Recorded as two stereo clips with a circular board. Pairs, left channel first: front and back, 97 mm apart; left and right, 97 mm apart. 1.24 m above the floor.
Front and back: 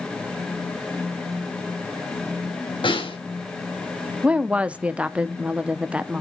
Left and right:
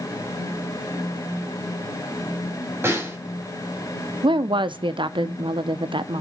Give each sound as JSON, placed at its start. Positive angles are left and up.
{"t": 2.8, "sound": "a snare drum", "azimuth_deg": -25, "distance_m": 4.0}
{"t": 4.2, "sound": "a woman speaking", "azimuth_deg": -105, "distance_m": 0.7}